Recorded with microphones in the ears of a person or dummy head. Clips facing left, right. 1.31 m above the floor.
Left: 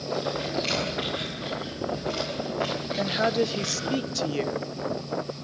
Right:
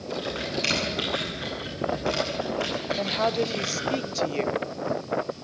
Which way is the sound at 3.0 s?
10° left (ahead or behind).